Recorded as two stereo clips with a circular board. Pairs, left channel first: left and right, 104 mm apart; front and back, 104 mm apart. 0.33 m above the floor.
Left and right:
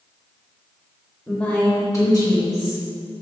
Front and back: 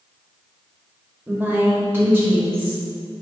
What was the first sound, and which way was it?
A woman speaking, 160° left.